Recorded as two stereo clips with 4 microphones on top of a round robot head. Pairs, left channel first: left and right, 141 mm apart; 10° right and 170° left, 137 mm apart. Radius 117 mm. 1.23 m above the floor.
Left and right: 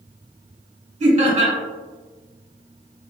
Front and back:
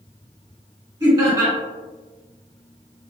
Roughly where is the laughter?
Behind right.